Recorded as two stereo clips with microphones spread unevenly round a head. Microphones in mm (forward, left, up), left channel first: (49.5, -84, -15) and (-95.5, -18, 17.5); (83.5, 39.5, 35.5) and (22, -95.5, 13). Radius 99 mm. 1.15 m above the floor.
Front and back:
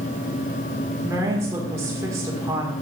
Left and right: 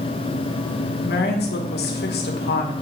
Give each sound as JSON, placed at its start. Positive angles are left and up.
{"t": 1.1, "sound": "a woman speaking", "azimuth_deg": 75, "distance_m": 1.4}